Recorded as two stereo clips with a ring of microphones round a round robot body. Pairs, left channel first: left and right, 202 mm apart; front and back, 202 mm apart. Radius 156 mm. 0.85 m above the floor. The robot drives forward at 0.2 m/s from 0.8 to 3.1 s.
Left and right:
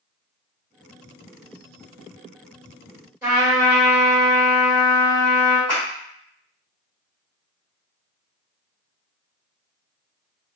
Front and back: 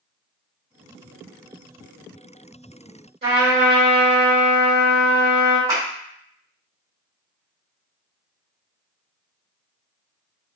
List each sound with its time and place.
3.2 s a trumpet: 165° right, 1.7 m
5.7 s a clap: 170° right, 1.8 m